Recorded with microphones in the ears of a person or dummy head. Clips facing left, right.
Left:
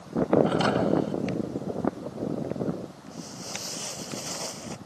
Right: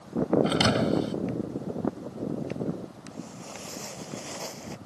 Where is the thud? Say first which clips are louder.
Left 1 dB; 40° right (ahead or behind).